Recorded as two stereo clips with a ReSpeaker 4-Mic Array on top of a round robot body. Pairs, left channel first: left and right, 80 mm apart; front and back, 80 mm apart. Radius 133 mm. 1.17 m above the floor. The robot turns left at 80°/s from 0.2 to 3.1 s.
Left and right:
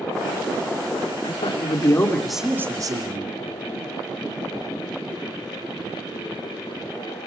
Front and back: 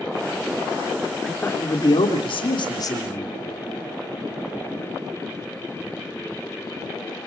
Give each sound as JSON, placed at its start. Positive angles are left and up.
{"t": 1.2, "sound": "a man speaking", "azimuth_deg": 85, "distance_m": 3.0}